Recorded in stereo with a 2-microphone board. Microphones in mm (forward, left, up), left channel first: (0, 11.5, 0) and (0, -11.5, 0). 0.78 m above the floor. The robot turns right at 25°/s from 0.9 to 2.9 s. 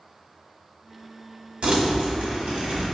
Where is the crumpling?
115° right, 1.3 m; by 2.8 s 85° right, 1.3 m.